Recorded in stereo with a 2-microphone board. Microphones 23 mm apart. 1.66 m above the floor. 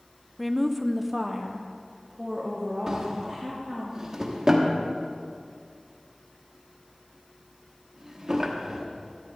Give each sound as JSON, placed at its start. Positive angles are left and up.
{"t": 0.4, "sound": "a woman speaking", "side_deg": 0, "distance_m": 0.5}
{"t": 2.9, "sound": "a drawer", "side_deg": -30, "distance_m": 1.3}